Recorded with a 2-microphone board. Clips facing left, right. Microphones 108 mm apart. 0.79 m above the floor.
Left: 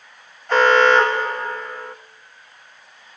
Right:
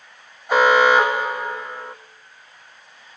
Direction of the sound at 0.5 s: 10° right (ahead or behind).